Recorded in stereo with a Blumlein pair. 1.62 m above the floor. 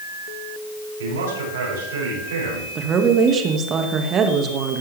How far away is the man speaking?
About 8 m.